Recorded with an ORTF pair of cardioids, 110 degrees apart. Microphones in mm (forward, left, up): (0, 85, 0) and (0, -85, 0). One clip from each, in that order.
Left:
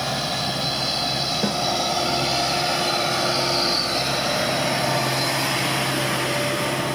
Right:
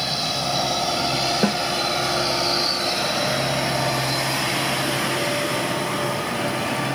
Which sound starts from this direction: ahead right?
A snare drum, at 1.4 s.